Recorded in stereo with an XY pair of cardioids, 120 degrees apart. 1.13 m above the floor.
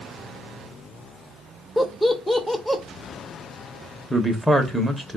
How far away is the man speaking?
About 0.8 m.